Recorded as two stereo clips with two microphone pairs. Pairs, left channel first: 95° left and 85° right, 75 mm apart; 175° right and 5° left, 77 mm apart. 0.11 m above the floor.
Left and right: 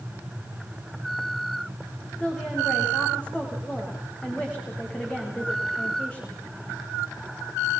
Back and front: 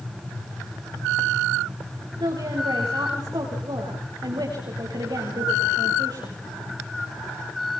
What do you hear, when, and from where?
2.2 s a woman speaking: 20° left, 8.5 m